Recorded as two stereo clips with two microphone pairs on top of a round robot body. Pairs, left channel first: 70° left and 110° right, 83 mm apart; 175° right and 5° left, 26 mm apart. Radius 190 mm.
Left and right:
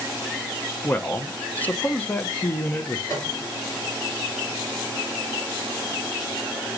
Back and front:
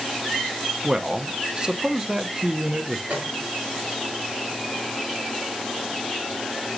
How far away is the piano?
About 3 m.